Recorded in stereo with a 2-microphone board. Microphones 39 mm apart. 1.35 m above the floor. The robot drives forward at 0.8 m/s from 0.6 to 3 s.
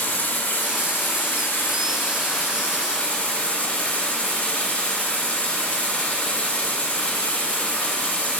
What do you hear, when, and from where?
0.0 s running water: 50° left (ahead or behind), 1.4 m; by 8.4 s 40° left (ahead or behind), 1.8 m